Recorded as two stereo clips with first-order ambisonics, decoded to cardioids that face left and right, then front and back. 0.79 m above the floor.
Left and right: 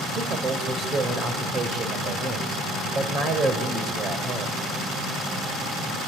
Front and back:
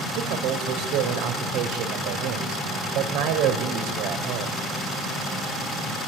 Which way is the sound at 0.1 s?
155° right.